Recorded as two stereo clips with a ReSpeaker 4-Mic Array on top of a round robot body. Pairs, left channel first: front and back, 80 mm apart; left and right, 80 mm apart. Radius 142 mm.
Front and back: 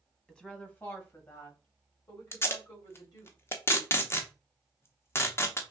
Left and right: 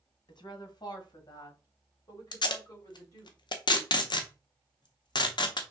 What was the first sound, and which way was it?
A woman speaking, 80° left.